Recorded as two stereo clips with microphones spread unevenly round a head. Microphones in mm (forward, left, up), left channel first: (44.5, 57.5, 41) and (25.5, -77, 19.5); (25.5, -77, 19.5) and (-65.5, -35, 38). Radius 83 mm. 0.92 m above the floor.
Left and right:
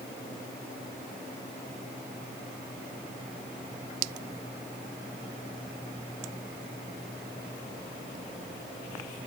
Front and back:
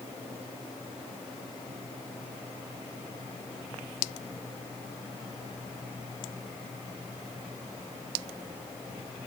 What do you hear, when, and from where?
Only background noise.